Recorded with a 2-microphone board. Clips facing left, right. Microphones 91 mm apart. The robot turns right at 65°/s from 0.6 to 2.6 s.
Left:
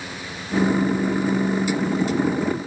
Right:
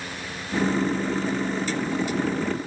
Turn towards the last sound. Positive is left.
No sound to turn to.